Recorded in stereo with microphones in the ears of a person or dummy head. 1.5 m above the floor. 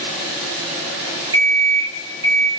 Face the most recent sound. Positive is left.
turn(degrees=-30)  # may be behind; listen again after turning